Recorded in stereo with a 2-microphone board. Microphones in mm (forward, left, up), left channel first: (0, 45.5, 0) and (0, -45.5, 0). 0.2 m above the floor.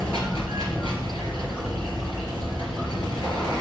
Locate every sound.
0.0 s running water: 70° left (ahead or behind), 2.5 m